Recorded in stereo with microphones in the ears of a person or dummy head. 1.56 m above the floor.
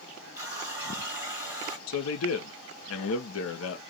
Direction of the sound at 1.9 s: 75° left (ahead or behind).